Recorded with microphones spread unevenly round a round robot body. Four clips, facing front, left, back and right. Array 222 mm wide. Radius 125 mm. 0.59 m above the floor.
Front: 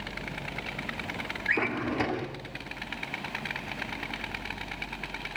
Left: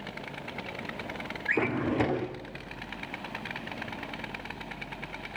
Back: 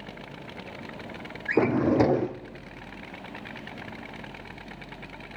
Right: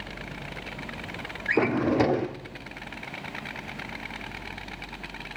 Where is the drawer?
150° right, 0.6 m.